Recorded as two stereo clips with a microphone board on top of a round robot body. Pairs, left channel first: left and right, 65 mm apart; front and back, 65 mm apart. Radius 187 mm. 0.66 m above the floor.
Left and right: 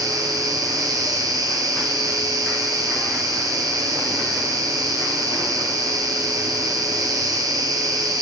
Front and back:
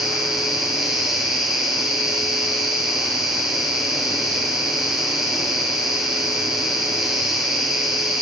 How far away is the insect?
About 1.6 m.